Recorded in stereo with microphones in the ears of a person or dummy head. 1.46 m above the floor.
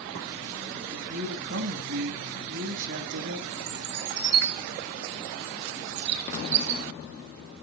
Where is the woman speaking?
70° right (ahead or behind), 3 m.